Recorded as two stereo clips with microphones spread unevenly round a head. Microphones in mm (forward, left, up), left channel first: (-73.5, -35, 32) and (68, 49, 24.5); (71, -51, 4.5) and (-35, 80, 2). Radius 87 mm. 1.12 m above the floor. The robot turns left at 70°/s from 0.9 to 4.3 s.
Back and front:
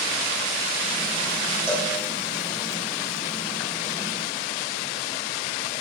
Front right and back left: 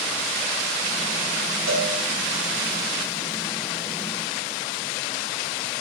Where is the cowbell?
125° left, 5.5 m; by 1.9 s 110° left, 5.5 m.